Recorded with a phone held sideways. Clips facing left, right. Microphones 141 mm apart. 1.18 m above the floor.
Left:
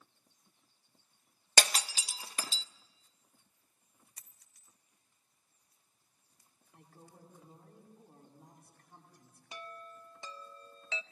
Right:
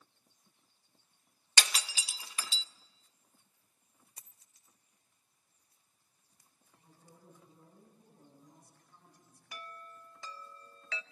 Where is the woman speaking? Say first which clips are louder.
Left 4 dB; 80° left, 10 m.